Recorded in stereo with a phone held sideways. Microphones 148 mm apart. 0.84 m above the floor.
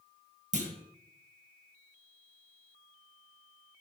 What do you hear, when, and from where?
0.5 s a clunk: 55° right (ahead or behind), 1.1 m